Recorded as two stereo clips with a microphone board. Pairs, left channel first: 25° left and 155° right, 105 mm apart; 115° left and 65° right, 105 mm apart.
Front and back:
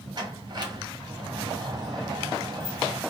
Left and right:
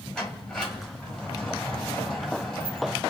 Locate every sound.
0.1 s a sliding door: 170° right, 1.8 m